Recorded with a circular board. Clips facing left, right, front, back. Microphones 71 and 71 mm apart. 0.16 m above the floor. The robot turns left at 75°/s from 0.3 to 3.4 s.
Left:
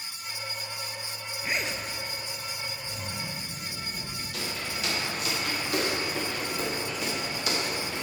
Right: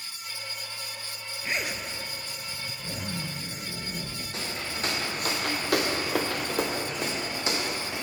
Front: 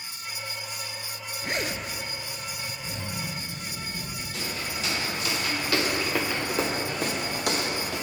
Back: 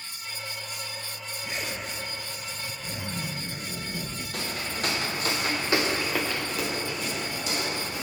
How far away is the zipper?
About 0.7 m.